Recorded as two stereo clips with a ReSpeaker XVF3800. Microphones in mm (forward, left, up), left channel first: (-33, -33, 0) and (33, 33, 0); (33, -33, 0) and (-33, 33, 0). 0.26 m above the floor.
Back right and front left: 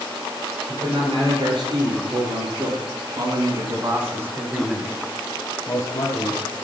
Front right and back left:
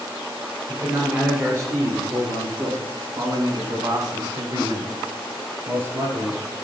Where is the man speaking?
75° left, 5 m; by 6.4 s 155° right, 1.9 m.